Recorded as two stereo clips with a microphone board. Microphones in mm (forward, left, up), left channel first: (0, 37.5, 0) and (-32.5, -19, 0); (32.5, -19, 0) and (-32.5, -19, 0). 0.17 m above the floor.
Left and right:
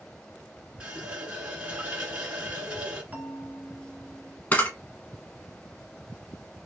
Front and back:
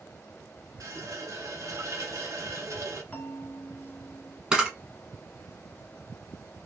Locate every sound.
0.8 s a running tap: 170° left, 1.2 m
3.1 s a bell: 60° right, 1.2 m
4.5 s a camera shutter: 110° left, 1.0 m